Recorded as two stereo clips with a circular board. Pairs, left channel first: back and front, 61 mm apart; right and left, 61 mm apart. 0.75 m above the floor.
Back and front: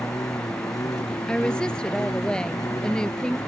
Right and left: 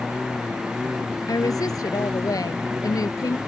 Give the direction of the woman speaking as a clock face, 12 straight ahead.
3 o'clock.